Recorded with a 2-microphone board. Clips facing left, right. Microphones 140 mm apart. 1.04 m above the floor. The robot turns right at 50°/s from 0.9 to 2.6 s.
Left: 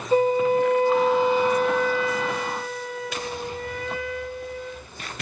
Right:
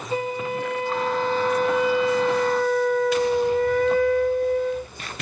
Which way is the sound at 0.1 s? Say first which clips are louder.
Left 8 dB; 145° left.